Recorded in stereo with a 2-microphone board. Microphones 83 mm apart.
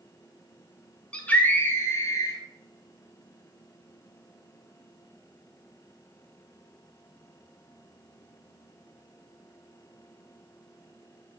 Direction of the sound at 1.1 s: 15° left (ahead or behind).